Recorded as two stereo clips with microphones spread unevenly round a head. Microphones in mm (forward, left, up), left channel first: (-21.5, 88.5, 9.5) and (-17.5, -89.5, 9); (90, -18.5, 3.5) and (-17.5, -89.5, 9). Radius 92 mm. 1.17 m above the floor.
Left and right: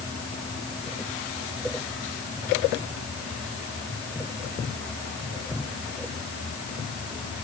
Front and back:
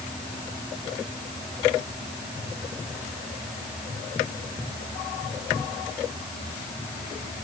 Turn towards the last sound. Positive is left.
No sound to turn to.